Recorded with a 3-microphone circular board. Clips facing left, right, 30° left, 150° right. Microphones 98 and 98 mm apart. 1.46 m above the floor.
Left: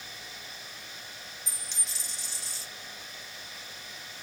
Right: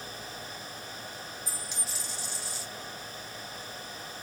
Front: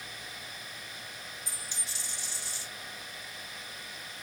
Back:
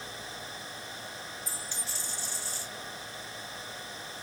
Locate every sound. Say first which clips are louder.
1.5 s a dropped coin: right 5 dB, back 3 dB; 10° right, 0.8 m